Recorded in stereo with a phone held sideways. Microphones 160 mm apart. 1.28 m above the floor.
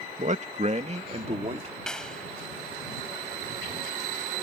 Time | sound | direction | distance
0.2 | a man speaking | 45° right (ahead or behind) | ?
1.9 | a clap | 5° left (ahead or behind) | ?